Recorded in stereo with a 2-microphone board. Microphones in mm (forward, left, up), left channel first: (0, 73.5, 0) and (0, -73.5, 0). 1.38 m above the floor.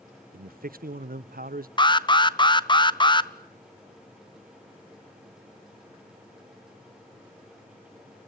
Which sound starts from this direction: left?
An alarm, at 1.8 s.